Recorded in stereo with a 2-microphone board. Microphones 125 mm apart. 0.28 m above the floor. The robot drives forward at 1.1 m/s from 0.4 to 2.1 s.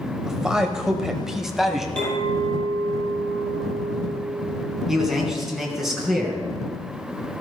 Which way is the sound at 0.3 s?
5° right (ahead or behind).